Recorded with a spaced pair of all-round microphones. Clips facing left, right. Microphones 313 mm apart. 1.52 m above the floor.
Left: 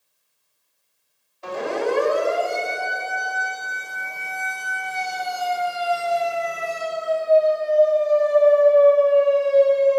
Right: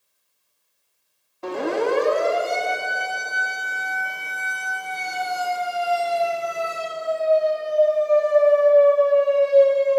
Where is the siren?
65° right (ahead or behind), 4.5 m; by 10.0 s 30° right (ahead or behind), 8 m.